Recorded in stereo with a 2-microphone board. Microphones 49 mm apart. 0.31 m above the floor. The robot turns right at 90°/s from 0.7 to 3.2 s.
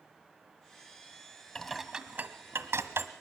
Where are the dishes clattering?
15° left (ahead or behind), 1.4 m; by 3.1 s 45° right (ahead or behind), 1.4 m.